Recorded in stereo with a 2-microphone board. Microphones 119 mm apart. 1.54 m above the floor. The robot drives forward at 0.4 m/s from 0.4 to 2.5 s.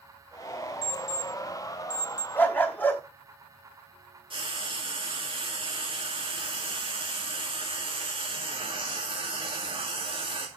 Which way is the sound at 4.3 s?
50° right (ahead or behind).